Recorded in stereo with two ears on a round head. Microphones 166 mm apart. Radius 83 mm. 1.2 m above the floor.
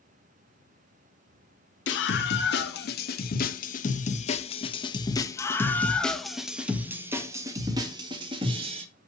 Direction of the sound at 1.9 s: 65° left (ahead or behind).